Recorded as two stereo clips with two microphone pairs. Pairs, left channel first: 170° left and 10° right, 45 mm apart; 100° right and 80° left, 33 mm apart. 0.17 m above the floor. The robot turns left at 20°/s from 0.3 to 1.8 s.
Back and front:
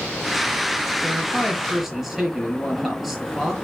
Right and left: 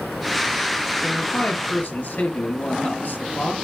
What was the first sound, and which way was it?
A man speaking, 80° right.